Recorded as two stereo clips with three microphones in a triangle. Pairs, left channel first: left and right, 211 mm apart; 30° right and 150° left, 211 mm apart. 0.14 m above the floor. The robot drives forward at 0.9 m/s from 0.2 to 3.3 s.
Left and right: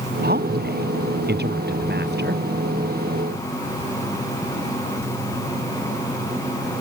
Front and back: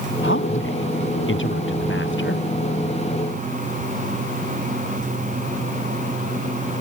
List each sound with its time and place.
0.2 s a woman speaking: 50° right; by 2.5 s 55° right